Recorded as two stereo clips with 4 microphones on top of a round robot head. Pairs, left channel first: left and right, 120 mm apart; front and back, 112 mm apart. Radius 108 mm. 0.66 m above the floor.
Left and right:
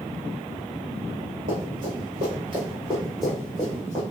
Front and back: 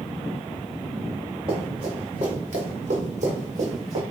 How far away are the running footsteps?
About 1.3 m.